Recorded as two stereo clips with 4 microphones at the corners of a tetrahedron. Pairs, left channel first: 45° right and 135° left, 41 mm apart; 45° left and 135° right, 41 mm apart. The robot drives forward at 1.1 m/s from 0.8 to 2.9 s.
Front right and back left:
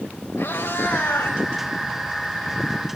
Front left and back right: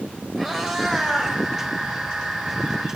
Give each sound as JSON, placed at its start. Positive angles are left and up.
{"t": 0.4, "sound": "a cat meowing", "azimuth_deg": -40, "distance_m": 4.0}